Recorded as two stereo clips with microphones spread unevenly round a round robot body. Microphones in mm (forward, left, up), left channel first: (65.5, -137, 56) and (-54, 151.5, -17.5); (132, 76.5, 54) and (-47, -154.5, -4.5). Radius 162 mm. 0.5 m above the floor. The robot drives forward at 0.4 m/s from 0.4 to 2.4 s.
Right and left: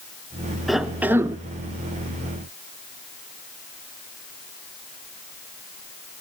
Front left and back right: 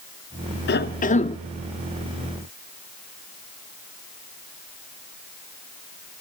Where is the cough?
60° left, 0.7 m; by 1.4 s 125° left, 0.7 m.